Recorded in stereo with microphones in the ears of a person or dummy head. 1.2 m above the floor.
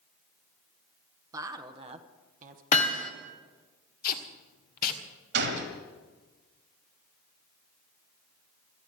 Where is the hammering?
45° left (ahead or behind), 1.6 m.